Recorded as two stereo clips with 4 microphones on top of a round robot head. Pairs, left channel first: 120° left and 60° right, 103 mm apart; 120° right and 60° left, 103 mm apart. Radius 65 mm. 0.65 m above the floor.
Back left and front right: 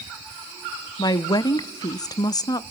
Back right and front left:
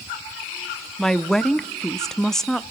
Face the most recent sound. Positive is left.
turn(degrees=155)